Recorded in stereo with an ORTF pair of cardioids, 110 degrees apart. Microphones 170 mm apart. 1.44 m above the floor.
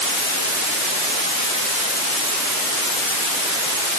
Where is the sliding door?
No sliding door in this recording.